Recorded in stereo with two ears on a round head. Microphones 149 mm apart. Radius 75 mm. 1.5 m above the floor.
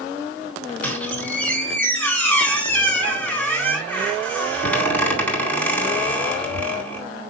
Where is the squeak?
10° left (ahead or behind), 4.5 m.